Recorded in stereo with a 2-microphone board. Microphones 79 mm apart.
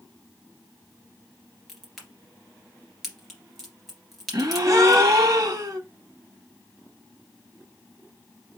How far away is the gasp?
About 0.8 m.